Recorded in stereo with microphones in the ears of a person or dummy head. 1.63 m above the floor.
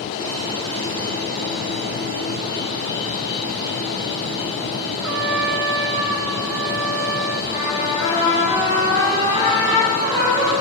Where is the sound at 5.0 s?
65° right (ahead or behind), 0.8 m.